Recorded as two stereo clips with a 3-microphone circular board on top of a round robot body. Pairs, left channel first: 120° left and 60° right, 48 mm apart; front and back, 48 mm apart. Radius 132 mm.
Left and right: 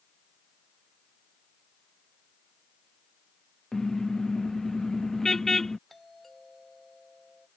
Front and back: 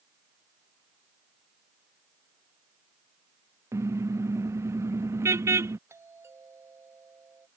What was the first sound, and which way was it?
A car horn, 160° right.